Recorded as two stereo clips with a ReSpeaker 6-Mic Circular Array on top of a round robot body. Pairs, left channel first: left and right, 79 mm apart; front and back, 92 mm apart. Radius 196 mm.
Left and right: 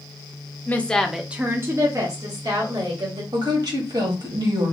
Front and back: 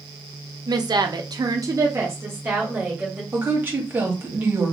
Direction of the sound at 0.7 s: 150° left.